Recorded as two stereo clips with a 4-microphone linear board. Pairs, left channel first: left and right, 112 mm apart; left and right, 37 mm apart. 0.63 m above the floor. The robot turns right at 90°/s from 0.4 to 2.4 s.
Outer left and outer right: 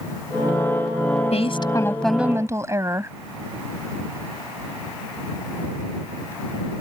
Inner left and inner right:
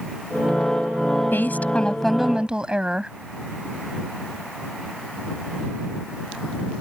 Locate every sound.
1.3 s a woman speaking: 110° left; by 3.1 s 155° right